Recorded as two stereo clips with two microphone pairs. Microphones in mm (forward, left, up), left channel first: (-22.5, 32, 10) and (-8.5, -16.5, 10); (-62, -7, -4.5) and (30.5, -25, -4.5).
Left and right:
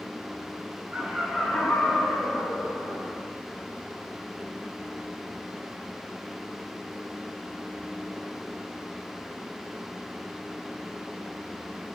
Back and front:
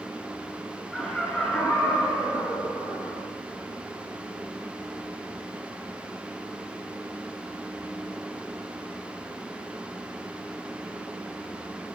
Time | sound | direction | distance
0.9 | laughter | 110° right | 1.1 m